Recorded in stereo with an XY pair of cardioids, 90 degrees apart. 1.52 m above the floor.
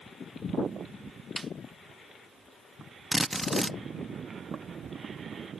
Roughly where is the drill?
Ahead.